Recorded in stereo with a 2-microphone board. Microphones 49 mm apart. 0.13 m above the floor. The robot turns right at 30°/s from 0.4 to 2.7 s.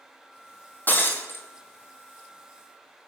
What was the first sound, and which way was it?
Breaking glass, 40° left (ahead or behind).